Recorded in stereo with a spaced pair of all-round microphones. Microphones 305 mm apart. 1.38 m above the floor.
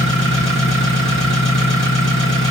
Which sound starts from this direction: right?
An engine running, at 0.0 s.